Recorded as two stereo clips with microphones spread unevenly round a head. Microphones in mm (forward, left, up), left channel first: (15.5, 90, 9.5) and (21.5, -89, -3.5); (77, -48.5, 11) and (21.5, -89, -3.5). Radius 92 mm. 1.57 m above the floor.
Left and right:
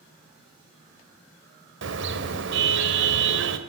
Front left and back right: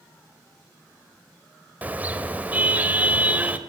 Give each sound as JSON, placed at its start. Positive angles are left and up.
{"t": 1.8, "sound": "a car horn", "azimuth_deg": -75, "distance_m": 3.5}